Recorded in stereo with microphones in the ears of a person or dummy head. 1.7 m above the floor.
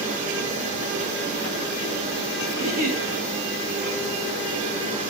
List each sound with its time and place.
2.5 s a giggle: 45° right (ahead or behind), 4 m